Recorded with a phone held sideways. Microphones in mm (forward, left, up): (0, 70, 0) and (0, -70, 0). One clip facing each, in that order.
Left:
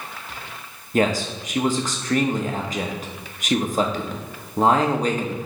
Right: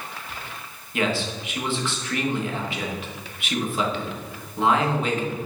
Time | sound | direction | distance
0.9 | a man speaking | 40° left (ahead or behind) | 1.0 m